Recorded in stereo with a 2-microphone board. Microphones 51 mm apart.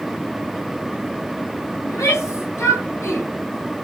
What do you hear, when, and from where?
1.9 s a shout: 75° left (ahead or behind), 3.5 m; by 3.3 s 70° left (ahead or behind), 3 m